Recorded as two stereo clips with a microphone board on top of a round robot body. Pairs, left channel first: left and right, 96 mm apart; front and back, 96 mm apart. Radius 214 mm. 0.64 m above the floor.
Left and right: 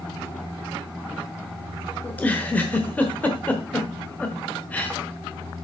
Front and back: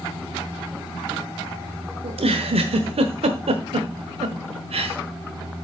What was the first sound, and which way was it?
A giggle, 165° left.